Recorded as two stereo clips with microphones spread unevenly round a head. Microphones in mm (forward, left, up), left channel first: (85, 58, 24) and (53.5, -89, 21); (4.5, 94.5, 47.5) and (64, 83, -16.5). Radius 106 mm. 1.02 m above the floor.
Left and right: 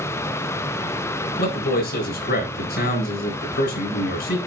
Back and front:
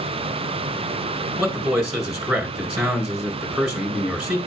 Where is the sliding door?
I don't hear a sliding door.